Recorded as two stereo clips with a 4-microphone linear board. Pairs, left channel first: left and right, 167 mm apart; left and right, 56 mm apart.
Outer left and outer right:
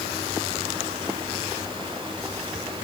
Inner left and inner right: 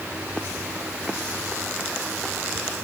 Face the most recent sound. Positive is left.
No sound to turn to.